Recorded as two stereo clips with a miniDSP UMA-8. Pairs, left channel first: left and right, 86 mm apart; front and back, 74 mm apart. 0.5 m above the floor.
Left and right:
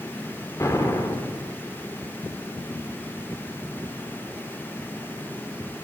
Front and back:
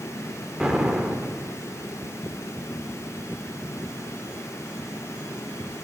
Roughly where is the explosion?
Left.